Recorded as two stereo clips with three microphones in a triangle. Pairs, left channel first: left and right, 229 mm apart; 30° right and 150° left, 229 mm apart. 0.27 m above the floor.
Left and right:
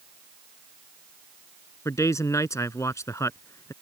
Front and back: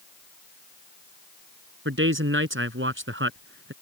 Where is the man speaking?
165° left.